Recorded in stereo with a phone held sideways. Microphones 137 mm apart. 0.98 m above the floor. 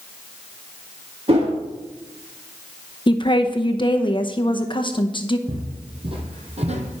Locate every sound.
1.3 s a whoosh: 45° right (ahead or behind), 2.5 m
3.1 s a woman speaking: 35° left (ahead or behind), 0.8 m
5.5 s footsteps: 30° right (ahead or behind), 2.0 m; by 7.0 s 55° right (ahead or behind), 1.9 m